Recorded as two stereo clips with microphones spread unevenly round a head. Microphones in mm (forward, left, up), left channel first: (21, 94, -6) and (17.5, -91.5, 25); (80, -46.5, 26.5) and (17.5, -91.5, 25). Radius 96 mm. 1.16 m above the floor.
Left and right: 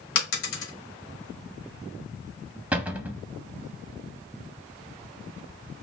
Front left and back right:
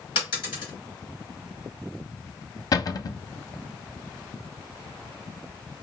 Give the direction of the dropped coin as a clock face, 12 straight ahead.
10 o'clock.